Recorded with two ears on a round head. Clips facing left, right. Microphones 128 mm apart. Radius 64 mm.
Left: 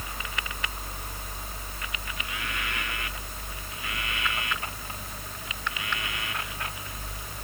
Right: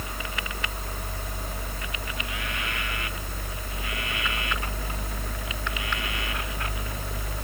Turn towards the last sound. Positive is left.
No sound to turn to.